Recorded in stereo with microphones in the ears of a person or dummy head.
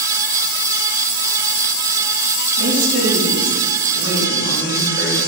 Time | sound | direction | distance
2.6 | a woman speaking | 80° right | 2.5 m